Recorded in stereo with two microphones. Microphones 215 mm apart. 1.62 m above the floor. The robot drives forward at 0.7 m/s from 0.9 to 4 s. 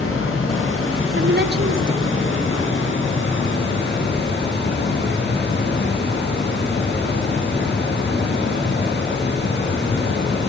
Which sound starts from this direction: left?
Running water, at 0.0 s.